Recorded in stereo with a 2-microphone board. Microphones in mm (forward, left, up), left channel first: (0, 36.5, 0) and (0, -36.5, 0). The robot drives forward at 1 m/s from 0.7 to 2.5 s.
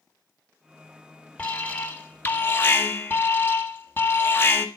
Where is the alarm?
15° left (ahead or behind), 2.5 m; by 4.7 s 30° left (ahead or behind), 1.6 m.